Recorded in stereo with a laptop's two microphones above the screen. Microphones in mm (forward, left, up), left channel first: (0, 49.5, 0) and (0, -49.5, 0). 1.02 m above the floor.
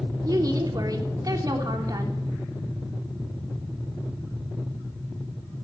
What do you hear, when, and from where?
0.2 s a woman speaking: 40° right (ahead or behind), 3.5 m